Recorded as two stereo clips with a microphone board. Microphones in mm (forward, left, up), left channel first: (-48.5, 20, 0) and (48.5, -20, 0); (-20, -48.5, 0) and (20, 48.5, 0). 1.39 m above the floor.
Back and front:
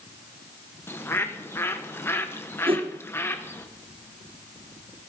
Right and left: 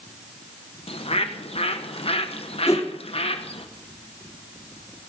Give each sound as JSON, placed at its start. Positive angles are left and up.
{"t": 0.9, "sound": "a bird", "azimuth_deg": -135, "distance_m": 1.0}
{"t": 2.7, "sound": "a whoosh", "azimuth_deg": -50, "distance_m": 1.5}